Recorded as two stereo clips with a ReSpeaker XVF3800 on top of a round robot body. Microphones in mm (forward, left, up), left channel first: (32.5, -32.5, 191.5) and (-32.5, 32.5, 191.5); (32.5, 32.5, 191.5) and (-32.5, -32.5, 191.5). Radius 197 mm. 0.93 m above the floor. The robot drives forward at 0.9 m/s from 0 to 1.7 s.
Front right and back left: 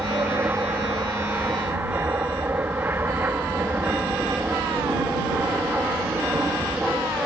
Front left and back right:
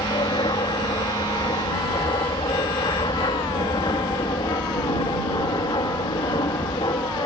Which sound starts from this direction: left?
An aircraft, at 0.0 s.